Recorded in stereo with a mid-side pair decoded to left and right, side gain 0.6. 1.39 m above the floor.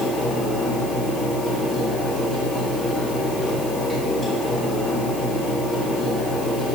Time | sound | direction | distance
0.0 | a fan | 20° left | 4 m